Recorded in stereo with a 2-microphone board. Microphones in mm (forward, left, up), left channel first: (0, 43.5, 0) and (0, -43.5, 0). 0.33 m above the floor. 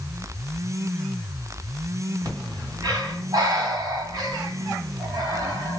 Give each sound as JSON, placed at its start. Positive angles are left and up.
{"t": 2.2, "sound": "breathing", "side_deg": -45, "distance_m": 1.8}